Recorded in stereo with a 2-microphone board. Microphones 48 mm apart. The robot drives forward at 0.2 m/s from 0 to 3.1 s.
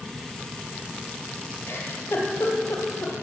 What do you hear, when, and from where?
1.7 s a giggle: 55° left (ahead or behind), 3 m; by 3.1 s 50° left (ahead or behind), 3 m